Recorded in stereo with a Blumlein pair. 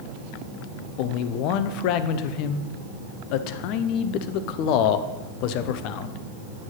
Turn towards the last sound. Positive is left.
turn(degrees=40)